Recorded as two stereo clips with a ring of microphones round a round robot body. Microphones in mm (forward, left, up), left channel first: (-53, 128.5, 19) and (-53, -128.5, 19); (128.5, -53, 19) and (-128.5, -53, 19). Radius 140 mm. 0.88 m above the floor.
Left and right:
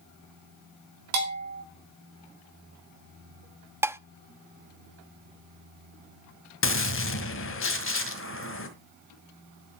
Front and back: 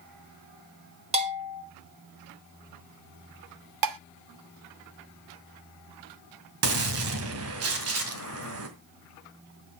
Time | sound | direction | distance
1.1 | a bell | 115° right | 6 m
3.8 | dishes clattering | 170° right | 0.6 m
6.6 | a gunshot | 135° left | 2.0 m